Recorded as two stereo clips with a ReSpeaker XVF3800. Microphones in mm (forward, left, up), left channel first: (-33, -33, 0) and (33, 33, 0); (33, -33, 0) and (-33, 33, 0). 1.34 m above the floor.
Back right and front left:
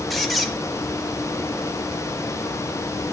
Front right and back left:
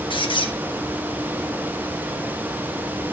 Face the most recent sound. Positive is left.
turn(degrees=-45)